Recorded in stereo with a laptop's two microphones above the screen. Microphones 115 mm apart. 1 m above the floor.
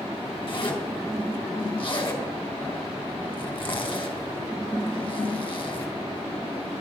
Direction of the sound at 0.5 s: 45° left (ahead or behind).